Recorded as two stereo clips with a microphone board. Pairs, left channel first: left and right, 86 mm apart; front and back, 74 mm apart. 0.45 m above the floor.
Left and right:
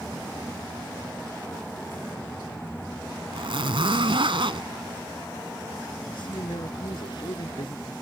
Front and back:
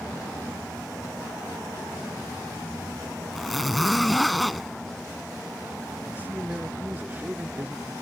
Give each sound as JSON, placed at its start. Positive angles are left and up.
{"t": 3.3, "sound": "a zipper", "azimuth_deg": -90}
{"t": 6.1, "sound": "a man speaking", "azimuth_deg": 115}